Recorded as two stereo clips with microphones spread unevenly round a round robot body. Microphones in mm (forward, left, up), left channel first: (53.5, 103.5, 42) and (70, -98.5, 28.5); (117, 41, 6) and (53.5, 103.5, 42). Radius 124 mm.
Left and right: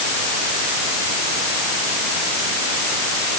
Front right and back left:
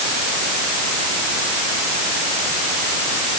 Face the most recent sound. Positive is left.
No sound to turn to.